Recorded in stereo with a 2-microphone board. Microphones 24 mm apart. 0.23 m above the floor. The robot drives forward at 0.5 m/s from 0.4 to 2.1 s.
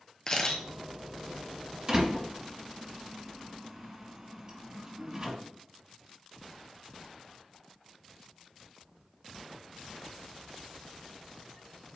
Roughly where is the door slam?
Right.